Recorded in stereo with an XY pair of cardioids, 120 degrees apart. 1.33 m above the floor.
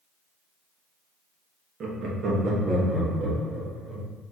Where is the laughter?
55° right, 1.1 m; by 4.1 s 35° right, 2.5 m.